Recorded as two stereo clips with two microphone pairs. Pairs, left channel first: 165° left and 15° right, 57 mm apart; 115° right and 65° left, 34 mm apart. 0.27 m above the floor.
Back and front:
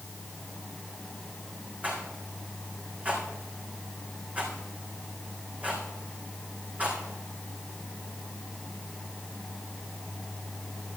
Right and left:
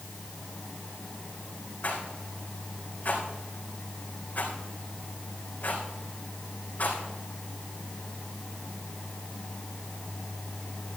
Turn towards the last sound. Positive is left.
turn(degrees=-80)